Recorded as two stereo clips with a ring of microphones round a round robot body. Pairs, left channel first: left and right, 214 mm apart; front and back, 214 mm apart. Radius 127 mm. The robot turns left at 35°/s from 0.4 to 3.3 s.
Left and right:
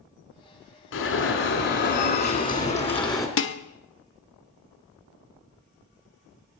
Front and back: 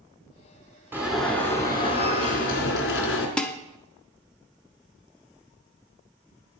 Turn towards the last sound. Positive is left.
turn(degrees=85)